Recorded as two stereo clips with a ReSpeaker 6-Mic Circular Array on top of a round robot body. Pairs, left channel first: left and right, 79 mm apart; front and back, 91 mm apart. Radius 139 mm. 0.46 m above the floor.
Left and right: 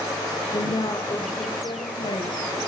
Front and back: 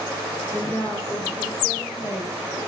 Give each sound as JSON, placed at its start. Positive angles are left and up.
{"t": 0.5, "sound": "a woman speaking", "azimuth_deg": 65, "distance_m": 2.5}